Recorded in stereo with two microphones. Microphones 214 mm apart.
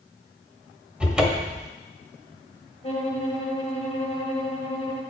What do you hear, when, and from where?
1.0 s a cupboard door: 5° right (ahead or behind), 1.0 m
2.8 s a violin: 30° left (ahead or behind), 1.5 m